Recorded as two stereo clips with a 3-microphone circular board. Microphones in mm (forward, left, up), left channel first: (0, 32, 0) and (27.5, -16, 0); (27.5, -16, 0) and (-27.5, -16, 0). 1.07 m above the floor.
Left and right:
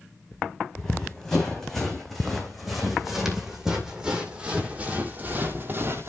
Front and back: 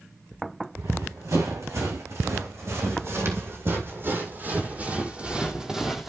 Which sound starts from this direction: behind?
Running footsteps, at 0.8 s.